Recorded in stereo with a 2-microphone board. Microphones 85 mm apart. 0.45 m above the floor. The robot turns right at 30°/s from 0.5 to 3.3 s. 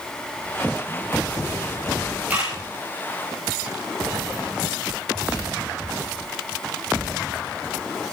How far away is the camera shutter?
About 6.5 m.